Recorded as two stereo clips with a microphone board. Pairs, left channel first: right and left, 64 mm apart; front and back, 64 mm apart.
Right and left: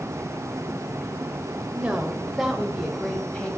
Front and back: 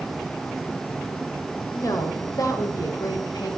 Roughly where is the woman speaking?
Ahead.